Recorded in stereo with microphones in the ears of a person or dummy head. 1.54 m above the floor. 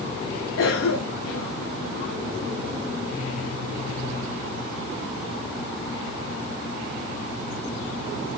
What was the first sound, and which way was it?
A cough, 70° left (ahead or behind).